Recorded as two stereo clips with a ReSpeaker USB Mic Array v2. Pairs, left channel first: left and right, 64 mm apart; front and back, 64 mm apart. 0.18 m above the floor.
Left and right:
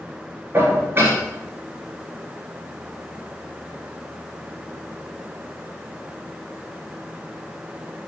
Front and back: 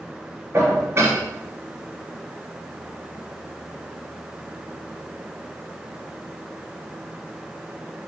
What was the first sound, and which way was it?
Dishes clattering, 140° right.